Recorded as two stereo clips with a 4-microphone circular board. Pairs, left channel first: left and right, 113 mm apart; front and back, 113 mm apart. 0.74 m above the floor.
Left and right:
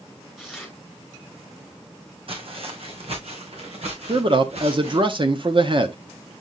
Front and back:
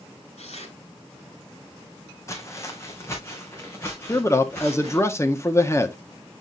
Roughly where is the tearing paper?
Ahead.